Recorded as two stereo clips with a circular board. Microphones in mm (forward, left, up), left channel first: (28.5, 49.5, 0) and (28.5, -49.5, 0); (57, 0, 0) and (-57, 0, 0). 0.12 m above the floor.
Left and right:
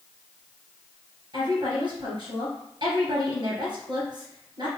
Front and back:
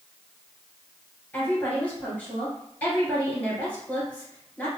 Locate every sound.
1.3 s a woman speaking: 75° right, 2 m